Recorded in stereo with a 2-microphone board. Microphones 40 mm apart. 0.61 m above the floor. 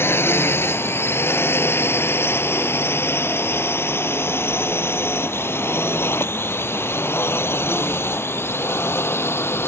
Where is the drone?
75° left (ahead or behind); by 9.7 s 80° left.